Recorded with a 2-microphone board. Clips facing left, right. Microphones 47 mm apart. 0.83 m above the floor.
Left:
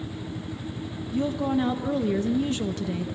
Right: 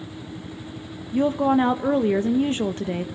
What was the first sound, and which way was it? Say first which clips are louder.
A woman speaking: right 6 dB; 35° right (ahead or behind).